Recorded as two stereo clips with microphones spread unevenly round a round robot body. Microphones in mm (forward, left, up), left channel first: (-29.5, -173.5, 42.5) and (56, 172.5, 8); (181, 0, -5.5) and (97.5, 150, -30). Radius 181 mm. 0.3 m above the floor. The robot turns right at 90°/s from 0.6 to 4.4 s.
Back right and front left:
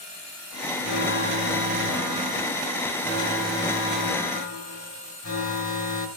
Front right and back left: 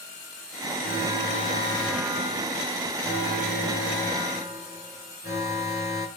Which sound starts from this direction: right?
An alarm, at 0.8 s.